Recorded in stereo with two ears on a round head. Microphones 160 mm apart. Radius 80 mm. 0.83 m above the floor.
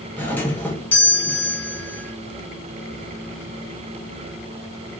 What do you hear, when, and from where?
0.2 s a doorbell: 10° left (ahead or behind), 2 m